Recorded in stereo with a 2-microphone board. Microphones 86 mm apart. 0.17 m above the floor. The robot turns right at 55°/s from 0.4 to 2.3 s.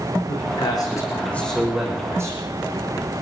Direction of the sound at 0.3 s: 110° left.